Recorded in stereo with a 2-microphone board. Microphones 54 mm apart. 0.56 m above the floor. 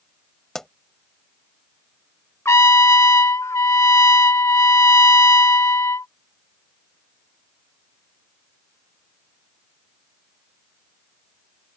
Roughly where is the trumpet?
Left.